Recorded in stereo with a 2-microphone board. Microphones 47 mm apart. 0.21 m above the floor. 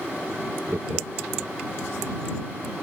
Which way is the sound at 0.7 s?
75° right (ahead or behind).